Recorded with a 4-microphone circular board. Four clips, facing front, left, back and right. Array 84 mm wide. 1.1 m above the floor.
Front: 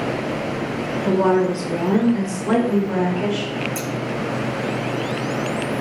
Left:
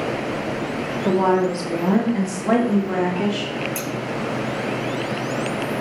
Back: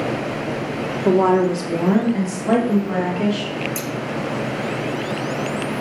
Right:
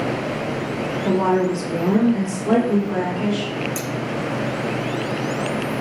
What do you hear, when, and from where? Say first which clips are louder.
1.1 s a woman speaking: left 1 dB, back 2 dB; 155° left, 2.5 m; by 3.5 s 115° left, 3 m
3.8 s scissors: even, even; 100° left, 1.1 m